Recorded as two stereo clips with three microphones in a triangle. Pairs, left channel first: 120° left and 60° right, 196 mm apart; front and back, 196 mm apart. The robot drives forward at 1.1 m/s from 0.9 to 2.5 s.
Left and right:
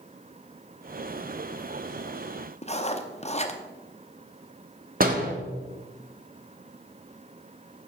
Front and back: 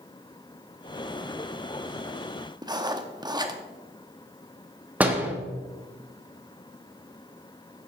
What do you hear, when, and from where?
2.6 s writing: 130° left, 0.7 m
5.0 s a door slam: 100° right, 1.1 m